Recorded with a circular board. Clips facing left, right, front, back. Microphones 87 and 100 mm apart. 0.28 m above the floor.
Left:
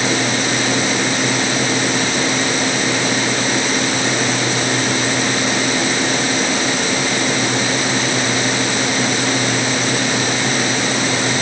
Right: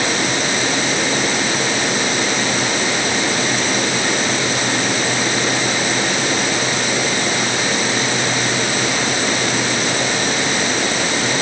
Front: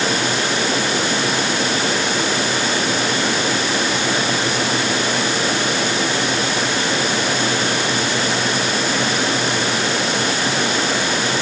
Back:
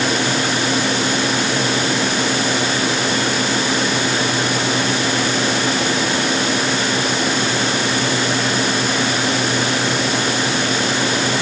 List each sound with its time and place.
Only background noise.